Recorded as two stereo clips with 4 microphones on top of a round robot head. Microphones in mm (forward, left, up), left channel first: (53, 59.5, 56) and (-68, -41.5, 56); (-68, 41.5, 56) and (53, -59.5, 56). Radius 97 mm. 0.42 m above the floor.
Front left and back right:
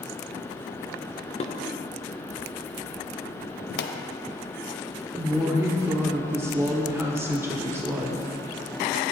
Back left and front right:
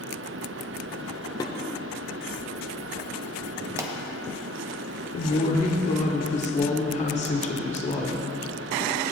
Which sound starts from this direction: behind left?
A woman speaking, at 5.1 s.